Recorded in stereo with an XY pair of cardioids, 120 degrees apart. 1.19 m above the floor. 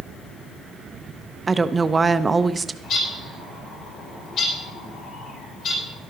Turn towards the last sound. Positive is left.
turn(degrees=60)